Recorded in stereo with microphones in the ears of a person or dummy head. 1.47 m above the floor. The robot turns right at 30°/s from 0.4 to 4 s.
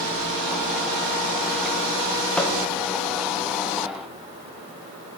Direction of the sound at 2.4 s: Centre (ahead or behind).